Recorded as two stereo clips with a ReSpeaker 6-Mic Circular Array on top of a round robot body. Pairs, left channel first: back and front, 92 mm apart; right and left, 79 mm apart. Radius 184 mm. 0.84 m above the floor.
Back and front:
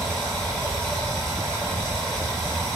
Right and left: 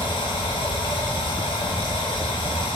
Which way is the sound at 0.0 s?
95° right.